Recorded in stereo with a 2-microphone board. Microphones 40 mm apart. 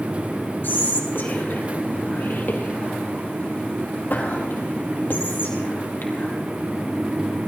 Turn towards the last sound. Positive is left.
turn(degrees=60)  # may be behind; listen again after turning